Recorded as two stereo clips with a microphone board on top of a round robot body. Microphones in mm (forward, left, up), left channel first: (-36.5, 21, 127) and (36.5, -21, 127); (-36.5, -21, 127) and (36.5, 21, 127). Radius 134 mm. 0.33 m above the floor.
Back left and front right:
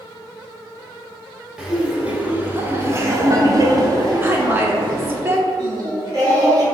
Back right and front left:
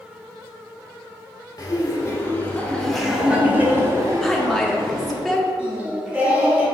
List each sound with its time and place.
1.6 s laughter: 110° right, 1.4 m; by 5.2 s 10° left, 1.7 m
4.2 s a woman speaking: 65° right, 0.9 m
5.6 s singing: 40° right, 1.7 m